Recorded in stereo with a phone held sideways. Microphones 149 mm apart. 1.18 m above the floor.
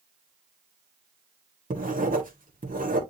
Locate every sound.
1.7 s writing: 65° right (ahead or behind), 1.8 m